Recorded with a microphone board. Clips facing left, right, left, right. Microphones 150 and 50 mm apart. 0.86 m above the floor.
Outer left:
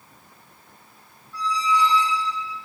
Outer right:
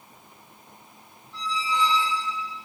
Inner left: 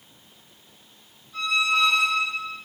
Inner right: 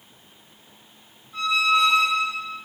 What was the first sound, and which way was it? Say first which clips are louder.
A squeak: outer left 5 dB, inner right 2 dB; 25° right (ahead or behind).